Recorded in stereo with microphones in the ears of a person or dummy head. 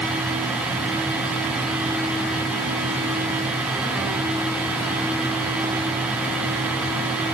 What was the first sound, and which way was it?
Only background noise.